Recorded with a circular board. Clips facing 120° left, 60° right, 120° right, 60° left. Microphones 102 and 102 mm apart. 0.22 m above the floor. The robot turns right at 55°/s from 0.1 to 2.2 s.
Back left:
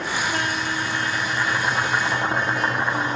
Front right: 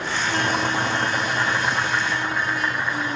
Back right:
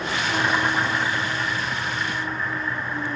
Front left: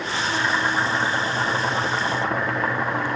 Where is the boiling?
50° right, 2.5 m; by 3.2 s 55° left, 2.5 m.